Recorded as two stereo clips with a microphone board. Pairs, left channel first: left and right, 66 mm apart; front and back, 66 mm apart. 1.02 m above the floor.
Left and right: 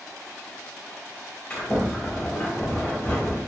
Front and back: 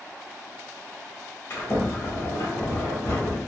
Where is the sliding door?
25° left, 1.2 m.